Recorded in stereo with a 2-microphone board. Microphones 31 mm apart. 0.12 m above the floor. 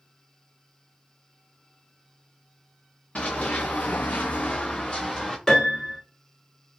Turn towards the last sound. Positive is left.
turn(degrees=10)  # may be behind; listen again after turning